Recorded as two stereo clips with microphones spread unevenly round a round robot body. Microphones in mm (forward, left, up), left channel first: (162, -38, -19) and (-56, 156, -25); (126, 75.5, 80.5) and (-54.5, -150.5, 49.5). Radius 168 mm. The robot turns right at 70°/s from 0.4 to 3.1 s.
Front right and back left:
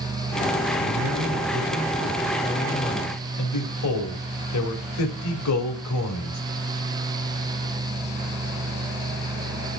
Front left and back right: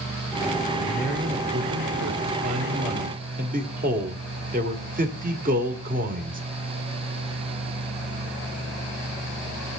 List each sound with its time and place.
0.8 s a man speaking: 120° left, 2 m; by 6.4 s 75° right, 2 m